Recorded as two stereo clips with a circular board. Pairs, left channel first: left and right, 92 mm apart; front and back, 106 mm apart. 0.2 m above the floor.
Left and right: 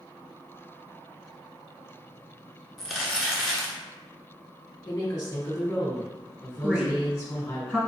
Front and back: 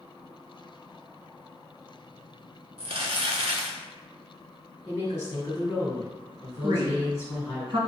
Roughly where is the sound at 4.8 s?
Ahead left.